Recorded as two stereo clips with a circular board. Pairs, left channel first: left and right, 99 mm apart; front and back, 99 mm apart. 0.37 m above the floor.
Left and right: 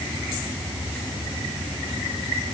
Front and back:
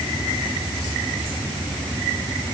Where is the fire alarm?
No fire alarm in this recording.